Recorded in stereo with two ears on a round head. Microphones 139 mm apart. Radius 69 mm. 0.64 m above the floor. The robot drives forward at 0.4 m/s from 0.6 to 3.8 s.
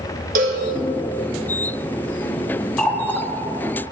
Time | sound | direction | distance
0.3 | a cowbell | 60° right (ahead or behind) | 1.9 m
2.8 | a running tap | 10° left (ahead or behind) | 0.8 m